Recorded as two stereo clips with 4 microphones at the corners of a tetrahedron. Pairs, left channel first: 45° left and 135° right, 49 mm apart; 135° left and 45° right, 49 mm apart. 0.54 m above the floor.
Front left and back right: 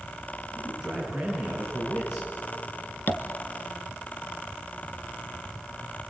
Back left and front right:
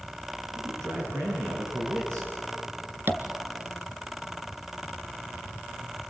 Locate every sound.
0.5 s a man speaking: 65° right, 5.5 m
3.1 s tapping: 5° right, 1.7 m